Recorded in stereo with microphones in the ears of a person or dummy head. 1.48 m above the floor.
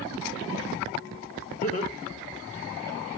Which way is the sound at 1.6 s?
35° left (ahead or behind).